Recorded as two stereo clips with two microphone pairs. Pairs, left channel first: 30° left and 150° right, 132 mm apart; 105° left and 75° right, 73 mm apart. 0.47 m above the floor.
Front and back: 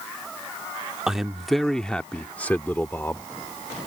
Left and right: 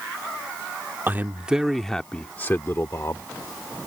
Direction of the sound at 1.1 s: 65° right.